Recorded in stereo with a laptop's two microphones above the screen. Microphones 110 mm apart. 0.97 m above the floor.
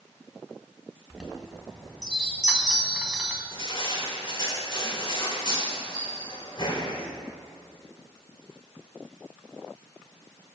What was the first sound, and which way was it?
A chime, 5° right (ahead or behind).